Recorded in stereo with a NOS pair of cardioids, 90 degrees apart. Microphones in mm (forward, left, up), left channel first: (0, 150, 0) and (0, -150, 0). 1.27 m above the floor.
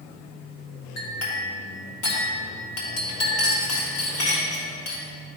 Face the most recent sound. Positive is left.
turn(degrees=60)